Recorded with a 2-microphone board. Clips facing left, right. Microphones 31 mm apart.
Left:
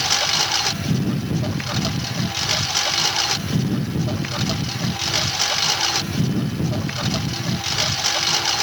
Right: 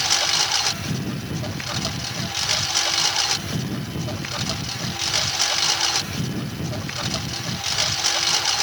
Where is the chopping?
No chopping in this recording.